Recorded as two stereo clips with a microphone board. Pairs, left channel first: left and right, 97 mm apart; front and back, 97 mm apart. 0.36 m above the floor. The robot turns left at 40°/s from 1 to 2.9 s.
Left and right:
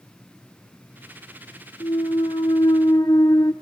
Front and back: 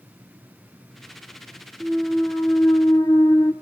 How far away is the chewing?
I don't hear chewing.